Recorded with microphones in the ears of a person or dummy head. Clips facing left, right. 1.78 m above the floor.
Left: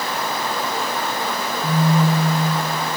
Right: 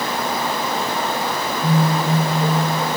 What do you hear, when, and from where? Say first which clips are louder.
1.6 s a phone buzzing: left 1 dB; 20° right (ahead or behind), 1.7 m